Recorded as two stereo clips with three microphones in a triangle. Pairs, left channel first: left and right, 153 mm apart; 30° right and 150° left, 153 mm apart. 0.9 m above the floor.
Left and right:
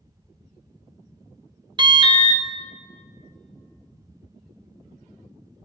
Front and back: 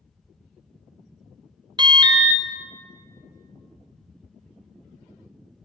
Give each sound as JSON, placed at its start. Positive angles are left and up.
{"t": 1.8, "sound": "an alarm", "azimuth_deg": -150, "distance_m": 0.6}